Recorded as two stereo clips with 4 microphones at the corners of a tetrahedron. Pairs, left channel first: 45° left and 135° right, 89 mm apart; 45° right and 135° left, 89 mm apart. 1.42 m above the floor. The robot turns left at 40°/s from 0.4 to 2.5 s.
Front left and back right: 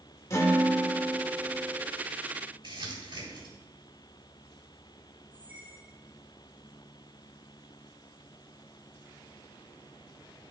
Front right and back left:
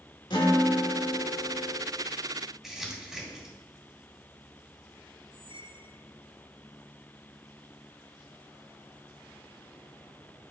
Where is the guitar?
10° right, 1.5 m; by 1.8 s 65° right, 1.5 m.